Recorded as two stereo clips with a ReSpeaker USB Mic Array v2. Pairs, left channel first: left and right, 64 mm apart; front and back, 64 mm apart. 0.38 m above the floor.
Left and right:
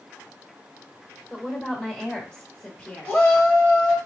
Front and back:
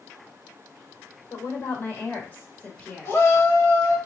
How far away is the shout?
About 2 m.